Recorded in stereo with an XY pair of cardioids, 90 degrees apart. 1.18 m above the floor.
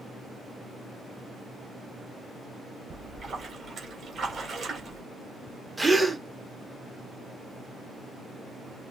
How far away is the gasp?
About 1.3 m.